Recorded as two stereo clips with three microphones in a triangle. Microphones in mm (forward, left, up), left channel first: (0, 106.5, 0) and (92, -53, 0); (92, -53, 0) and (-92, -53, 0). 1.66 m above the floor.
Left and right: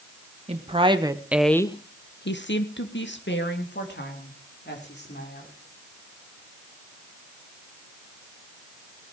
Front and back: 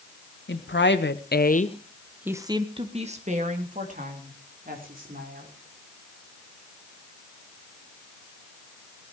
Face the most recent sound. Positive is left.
turn(degrees=145)